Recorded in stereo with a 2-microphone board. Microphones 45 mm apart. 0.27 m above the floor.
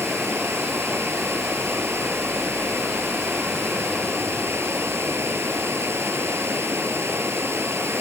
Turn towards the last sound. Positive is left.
turn(degrees=-80)